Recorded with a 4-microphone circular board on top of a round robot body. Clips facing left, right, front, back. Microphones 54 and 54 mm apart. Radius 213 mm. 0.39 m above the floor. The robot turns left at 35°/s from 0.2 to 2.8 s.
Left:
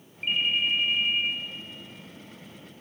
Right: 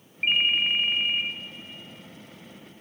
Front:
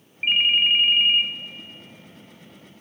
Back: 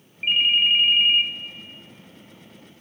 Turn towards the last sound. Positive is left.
turn(degrees=-145)